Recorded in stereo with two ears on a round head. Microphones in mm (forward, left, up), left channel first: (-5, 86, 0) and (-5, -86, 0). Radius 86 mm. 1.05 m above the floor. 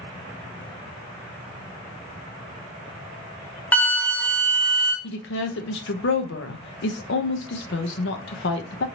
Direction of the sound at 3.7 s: 10° left (ahead or behind).